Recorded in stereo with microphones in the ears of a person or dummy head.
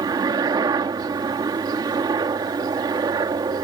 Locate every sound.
0.0 s a helicopter: 25° right (ahead or behind)